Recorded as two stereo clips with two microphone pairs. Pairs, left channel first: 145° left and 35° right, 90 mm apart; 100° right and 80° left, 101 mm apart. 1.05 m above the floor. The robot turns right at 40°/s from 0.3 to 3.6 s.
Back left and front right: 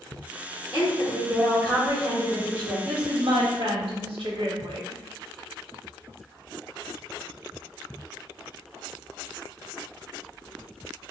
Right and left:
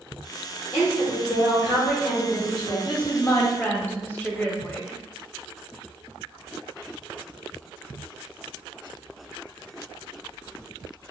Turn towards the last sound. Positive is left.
turn(degrees=-30)